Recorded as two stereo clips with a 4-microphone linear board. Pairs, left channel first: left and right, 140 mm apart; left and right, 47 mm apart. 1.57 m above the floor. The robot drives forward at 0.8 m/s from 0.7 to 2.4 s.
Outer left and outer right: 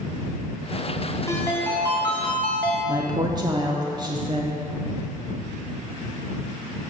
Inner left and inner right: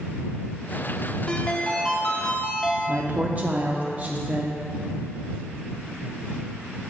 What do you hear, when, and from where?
1.3 s a ringtone: 20° left (ahead or behind), 0.7 m; by 2.8 s 10° left (ahead or behind), 1.3 m
2.9 s a woman speaking: 30° right (ahead or behind), 0.5 m